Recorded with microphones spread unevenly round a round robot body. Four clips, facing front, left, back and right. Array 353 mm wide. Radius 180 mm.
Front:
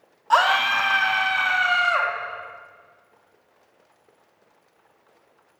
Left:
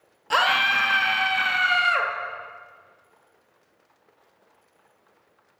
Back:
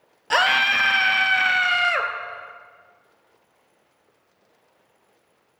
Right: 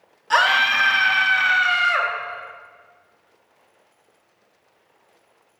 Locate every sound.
0.3 s a scream: 165° left, 0.8 m